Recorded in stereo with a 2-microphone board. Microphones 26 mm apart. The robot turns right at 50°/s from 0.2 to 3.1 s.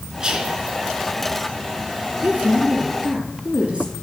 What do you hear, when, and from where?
0.2 s whispering: 30° right (ahead or behind), 2.5 m; by 0.6 s 45° right (ahead or behind), 2.5 m
2.2 s a woman speaking: 95° right, 4 m; by 3.9 s 50° right, 4 m